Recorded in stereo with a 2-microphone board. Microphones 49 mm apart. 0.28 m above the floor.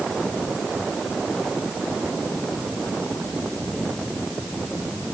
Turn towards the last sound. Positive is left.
No sound to turn to.